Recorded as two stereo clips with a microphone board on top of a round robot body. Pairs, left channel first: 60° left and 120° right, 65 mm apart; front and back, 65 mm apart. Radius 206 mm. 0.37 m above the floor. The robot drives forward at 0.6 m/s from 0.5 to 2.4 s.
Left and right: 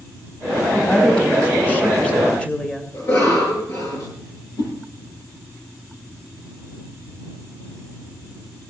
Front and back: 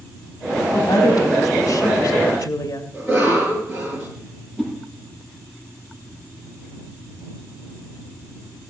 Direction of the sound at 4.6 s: 85° left.